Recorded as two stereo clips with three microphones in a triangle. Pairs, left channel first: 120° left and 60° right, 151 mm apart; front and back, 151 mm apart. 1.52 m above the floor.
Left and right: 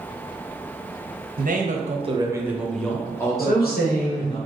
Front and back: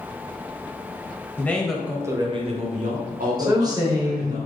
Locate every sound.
1.4 s a man speaking: 75° right, 0.7 m; by 4.4 s 175° left, 1.4 m
3.4 s a woman speaking: 115° left, 1.0 m